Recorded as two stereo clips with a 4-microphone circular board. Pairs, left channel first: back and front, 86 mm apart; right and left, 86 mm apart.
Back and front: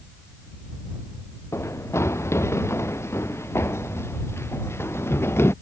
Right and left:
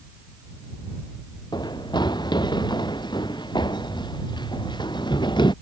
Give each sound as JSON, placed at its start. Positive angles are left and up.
{"t": 1.5, "sound": "running footsteps", "azimuth_deg": -125}